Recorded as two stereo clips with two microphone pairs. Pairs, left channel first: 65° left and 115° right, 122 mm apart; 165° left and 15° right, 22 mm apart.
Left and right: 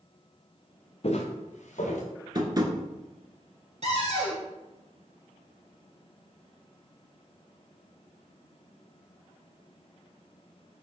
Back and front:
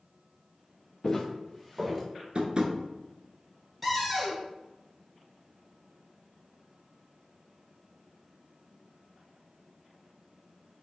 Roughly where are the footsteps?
Left.